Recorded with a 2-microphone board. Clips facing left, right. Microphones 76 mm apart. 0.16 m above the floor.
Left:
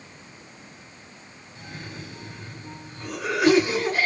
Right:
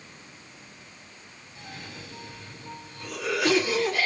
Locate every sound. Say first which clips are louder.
1.6 s a cough: left 3 dB; 30° left (ahead or behind), 2 m